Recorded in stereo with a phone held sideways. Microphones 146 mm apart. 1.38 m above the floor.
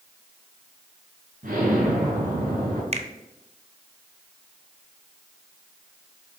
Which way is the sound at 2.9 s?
50° right (ahead or behind).